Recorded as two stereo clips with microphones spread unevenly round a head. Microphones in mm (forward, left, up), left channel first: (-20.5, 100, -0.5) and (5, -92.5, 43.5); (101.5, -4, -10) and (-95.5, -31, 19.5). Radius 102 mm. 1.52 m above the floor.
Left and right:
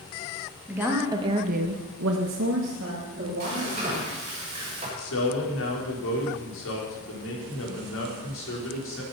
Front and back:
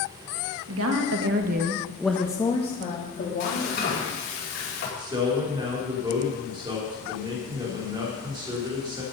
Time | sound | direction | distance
0.7 | a woman speaking | 165° right | 2 m
3.4 | frying | 25° right | 5.5 m
5.0 | a man speaking | 120° left | 4 m